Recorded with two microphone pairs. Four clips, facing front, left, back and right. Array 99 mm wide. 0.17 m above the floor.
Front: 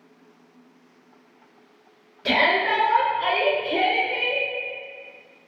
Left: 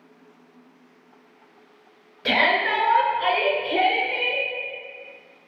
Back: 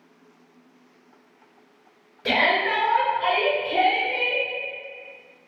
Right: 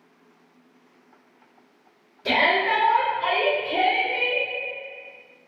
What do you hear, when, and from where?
2.2 s a shout: 85° left, 1.6 m; by 4.4 s 45° left, 2 m